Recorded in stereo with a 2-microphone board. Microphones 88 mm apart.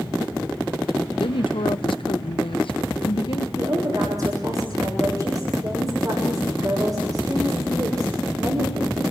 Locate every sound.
1.2 s a woman speaking: 70° left (ahead or behind), 1.0 m
3.6 s a woman speaking: 40° right (ahead or behind), 6.5 m